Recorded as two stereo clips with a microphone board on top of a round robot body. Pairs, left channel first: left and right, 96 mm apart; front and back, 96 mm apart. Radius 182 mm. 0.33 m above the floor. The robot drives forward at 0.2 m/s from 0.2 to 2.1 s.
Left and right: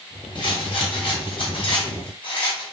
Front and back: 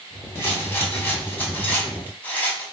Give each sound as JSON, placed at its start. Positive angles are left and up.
{"t": 0.3, "sound": "a rattle", "azimuth_deg": 65, "distance_m": 2.0}